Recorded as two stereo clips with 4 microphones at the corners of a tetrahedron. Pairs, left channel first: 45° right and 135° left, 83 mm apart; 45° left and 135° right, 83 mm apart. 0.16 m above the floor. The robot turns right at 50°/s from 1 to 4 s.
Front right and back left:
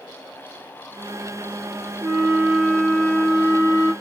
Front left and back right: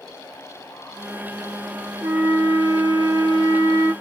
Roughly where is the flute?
Behind.